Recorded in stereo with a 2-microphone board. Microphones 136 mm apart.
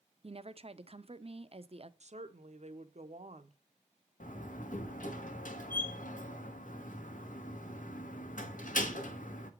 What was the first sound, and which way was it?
A woman speaking, 45° right (ahead or behind).